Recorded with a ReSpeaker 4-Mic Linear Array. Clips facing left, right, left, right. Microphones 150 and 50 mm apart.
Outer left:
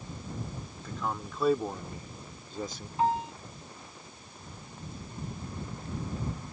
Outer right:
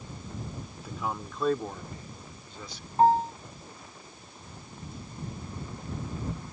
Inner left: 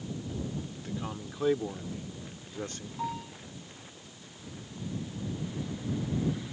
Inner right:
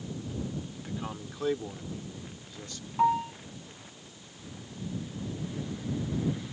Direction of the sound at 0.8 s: 10° right (ahead or behind).